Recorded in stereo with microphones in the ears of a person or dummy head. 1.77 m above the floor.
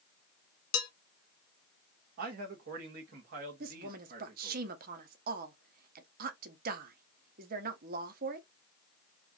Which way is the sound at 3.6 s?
60° right (ahead or behind).